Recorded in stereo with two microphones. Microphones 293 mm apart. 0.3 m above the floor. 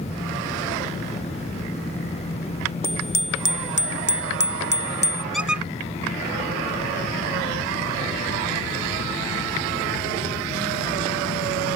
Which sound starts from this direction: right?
A squeak, at 5.3 s.